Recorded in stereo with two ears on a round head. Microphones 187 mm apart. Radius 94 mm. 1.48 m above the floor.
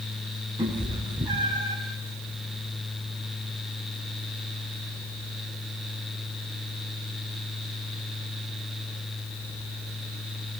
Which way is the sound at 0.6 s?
25° right (ahead or behind).